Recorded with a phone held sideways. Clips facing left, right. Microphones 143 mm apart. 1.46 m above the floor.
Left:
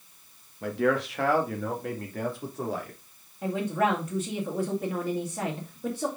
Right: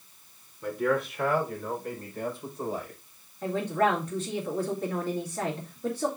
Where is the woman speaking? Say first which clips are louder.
Right 1 dB; 10° left (ahead or behind), 2 m.